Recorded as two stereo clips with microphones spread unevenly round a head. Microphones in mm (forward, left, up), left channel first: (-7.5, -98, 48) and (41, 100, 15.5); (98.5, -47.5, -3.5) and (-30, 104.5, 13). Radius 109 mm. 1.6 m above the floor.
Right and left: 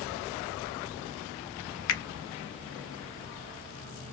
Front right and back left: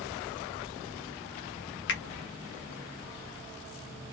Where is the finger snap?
95° right, 0.6 m.